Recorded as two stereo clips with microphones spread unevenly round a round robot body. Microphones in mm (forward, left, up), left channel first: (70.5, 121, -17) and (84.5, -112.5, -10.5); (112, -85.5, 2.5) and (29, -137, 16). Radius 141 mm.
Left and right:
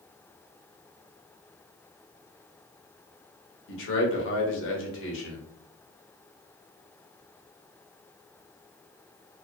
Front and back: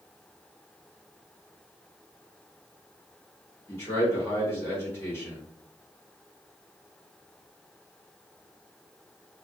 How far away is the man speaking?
About 0.8 m.